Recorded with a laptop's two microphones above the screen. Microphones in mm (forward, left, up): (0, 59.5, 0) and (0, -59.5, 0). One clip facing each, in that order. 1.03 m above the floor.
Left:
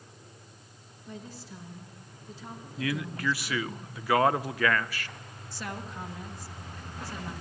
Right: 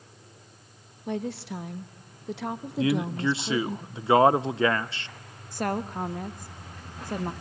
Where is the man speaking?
25° right (ahead or behind), 0.6 m.